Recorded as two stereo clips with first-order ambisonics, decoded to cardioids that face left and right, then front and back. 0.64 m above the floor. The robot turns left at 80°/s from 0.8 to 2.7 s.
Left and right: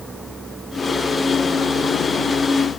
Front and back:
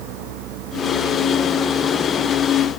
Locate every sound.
0.0 s a vehicle: 175° right; by 2.8 s 30° left